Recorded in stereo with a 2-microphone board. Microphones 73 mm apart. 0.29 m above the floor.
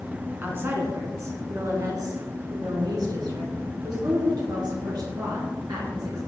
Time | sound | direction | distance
0.4 | a woman speaking | 30° right (ahead or behind) | 3 m